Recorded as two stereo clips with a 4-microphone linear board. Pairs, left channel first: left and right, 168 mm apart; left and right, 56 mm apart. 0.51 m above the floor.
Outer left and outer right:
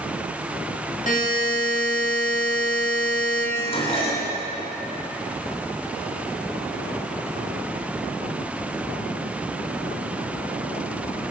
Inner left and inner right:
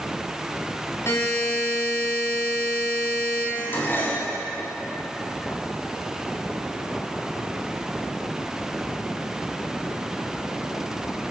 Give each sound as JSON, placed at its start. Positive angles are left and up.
{"t": 1.1, "sound": "a buzzer", "side_deg": 50, "distance_m": 4.0}
{"t": 3.5, "sound": "dishes clattering", "side_deg": 35, "distance_m": 2.5}